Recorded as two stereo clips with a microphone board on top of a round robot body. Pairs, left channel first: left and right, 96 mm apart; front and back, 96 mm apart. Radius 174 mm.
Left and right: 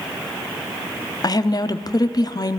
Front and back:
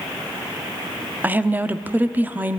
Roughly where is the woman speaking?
Behind left.